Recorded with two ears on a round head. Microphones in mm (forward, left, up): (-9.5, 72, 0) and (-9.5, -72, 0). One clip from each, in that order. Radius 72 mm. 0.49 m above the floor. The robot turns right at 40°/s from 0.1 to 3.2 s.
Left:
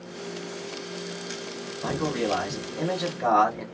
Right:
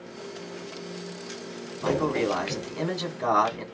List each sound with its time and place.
1.8 s a man speaking: 85° right, 2 m; by 3.6 s 30° right, 2 m